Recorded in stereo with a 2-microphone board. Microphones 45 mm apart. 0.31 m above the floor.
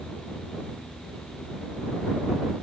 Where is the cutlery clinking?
I don't hear cutlery clinking.